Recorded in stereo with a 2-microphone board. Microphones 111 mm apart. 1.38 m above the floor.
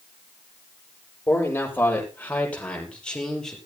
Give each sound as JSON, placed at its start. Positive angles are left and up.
{"t": 1.3, "sound": "a man speaking", "side_deg": 20, "distance_m": 7.0}